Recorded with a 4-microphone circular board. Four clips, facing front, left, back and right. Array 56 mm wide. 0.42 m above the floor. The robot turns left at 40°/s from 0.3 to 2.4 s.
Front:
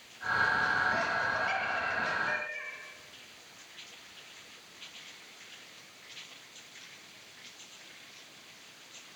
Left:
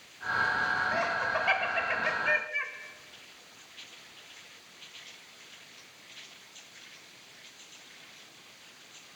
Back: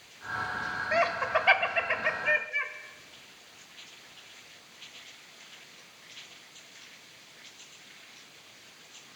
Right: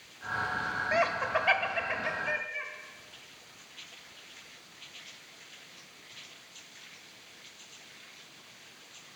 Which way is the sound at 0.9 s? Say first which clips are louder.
Right 1 dB, back 4 dB; 150° right.